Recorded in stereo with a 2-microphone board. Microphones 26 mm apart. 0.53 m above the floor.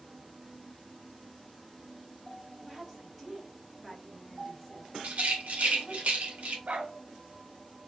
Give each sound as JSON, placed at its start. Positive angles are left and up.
{"t": 2.6, "sound": "a woman speaking", "side_deg": -15, "distance_m": 1.2}
{"t": 5.0, "sound": "a rattle", "side_deg": -75, "distance_m": 1.1}
{"t": 6.7, "sound": "a dog barking", "side_deg": -80, "distance_m": 0.8}